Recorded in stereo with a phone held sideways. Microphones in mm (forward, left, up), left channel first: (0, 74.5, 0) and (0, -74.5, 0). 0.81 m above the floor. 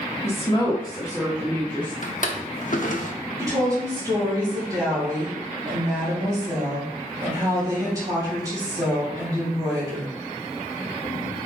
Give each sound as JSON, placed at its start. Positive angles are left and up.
{"t": 0.2, "sound": "a woman speaking", "side_deg": 45, "distance_m": 1.9}
{"t": 2.0, "sound": "a drawer", "side_deg": 60, "distance_m": 1.0}
{"t": 3.4, "sound": "a woman speaking", "side_deg": -25, "distance_m": 4.0}